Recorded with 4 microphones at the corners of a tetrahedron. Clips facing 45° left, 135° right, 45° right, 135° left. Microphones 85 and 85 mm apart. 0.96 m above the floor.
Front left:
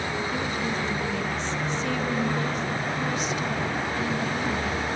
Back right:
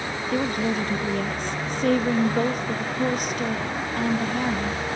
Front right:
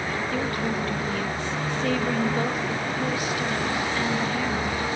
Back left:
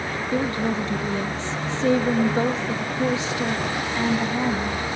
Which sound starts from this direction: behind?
A woman speaking, at 0.3 s.